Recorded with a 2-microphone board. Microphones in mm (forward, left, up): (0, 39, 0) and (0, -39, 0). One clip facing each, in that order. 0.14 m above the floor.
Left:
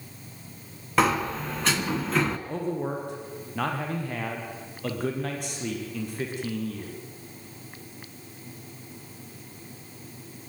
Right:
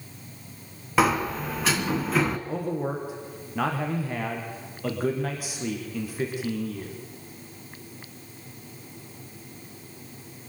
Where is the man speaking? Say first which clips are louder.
Right 1 dB; 5° right (ahead or behind), 4.5 m.